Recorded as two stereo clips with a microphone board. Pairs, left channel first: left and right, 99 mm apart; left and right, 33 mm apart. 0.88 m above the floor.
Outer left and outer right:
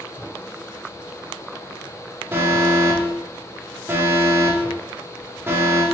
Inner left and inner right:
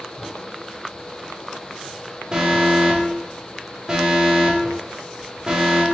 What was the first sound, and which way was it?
An alarm, 25° right (ahead or behind).